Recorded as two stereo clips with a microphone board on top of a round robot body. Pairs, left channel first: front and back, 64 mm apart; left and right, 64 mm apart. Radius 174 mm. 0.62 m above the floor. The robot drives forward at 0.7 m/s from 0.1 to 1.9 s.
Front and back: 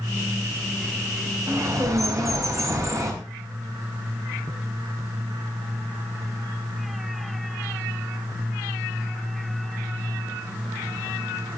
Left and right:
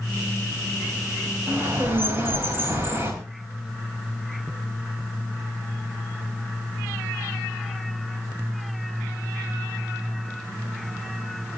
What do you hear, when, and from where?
1.5 s a bird: 145° right, 4 m